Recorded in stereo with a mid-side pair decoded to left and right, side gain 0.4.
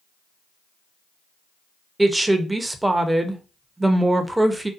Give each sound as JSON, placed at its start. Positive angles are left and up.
{"t": 2.0, "sound": "a woman speaking", "azimuth_deg": -15, "distance_m": 0.6}